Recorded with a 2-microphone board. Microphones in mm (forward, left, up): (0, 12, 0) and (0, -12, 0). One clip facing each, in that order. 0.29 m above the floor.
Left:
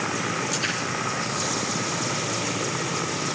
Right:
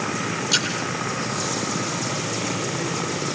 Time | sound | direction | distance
0.5 | a splash | 45° right (ahead or behind) | 9.5 m